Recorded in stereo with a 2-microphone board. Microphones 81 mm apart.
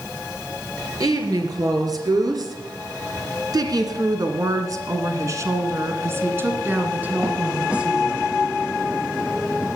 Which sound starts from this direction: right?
A woman speaking, at 1.0 s.